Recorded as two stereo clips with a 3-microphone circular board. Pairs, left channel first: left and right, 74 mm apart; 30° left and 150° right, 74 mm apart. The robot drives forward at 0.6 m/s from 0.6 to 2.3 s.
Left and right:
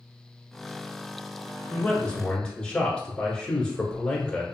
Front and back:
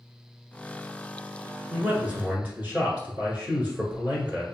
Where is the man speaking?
140° left, 1.1 m; by 4.4 s 160° left, 1.2 m.